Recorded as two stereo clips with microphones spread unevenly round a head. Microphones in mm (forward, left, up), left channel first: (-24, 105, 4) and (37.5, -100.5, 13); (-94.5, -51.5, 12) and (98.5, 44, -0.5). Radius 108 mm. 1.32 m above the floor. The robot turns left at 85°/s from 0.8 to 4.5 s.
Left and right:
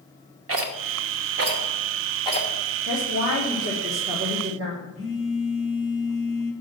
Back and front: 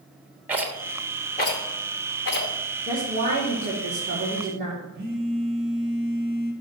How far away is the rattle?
About 1.0 m.